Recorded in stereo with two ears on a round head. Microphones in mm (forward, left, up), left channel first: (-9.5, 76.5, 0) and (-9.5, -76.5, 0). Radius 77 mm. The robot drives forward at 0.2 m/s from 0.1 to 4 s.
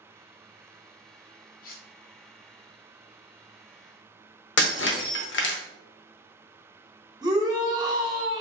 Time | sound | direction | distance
1.6 | cutlery clinking | 55° left (ahead or behind) | 0.6 m
4.6 | breaking glass | 75° left (ahead or behind) | 0.7 m
7.2 | a shout | 25° right (ahead or behind) | 1.0 m